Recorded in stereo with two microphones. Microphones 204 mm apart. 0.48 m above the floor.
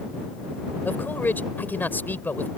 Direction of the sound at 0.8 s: 10° left (ahead or behind).